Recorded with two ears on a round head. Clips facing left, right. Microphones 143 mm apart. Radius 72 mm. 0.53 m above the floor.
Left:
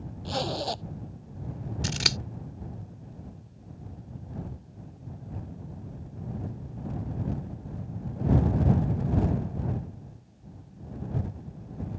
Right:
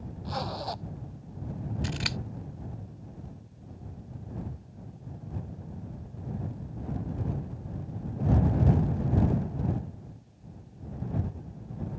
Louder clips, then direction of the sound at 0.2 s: Left 4 dB; 35° left (ahead or behind).